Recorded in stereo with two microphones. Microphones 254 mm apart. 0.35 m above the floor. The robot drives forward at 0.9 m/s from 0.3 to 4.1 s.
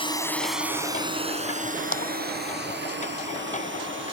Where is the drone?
20° left (ahead or behind); by 4.1 s 45° right (ahead or behind).